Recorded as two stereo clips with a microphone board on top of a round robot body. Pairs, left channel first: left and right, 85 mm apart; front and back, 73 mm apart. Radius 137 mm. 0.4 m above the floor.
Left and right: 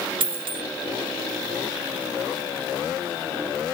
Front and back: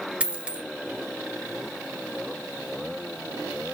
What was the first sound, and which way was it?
A dropped coin, 105° right.